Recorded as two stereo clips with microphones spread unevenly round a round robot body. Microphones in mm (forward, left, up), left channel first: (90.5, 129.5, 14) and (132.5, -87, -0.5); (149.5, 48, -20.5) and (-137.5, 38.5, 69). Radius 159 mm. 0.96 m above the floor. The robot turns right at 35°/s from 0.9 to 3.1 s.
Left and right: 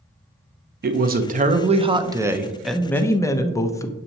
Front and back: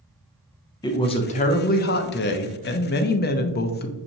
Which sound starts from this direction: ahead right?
A woman speaking, at 0.8 s.